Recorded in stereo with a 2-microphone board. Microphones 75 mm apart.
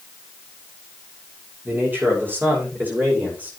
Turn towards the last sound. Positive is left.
turn(degrees=-20)  # may be behind; listen again after turning